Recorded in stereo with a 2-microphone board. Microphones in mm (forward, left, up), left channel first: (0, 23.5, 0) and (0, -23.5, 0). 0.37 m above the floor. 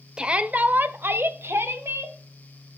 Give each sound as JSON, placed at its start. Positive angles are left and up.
{"t": 0.2, "sound": "a shout", "side_deg": -20, "distance_m": 0.9}